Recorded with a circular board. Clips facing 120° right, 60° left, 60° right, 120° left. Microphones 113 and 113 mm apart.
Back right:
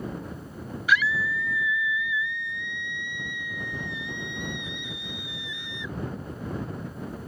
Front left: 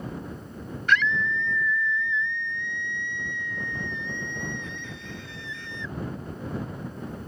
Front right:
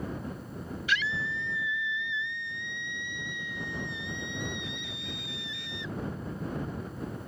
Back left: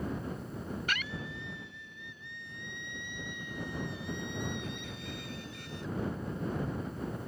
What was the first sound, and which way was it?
A scream, 155° left.